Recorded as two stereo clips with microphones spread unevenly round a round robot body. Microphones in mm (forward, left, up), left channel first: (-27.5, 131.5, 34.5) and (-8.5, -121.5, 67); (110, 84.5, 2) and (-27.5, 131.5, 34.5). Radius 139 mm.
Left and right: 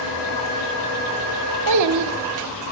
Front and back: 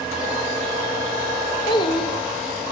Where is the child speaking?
80° right, 1.4 m.